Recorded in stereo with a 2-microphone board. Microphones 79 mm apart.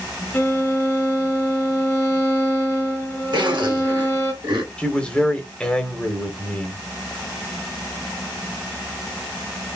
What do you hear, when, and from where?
0.3 s a violin: 30° left (ahead or behind), 1.7 m
3.3 s a zipper: 65° right (ahead or behind), 2 m
4.8 s a man speaking: 15° left (ahead or behind), 1.1 m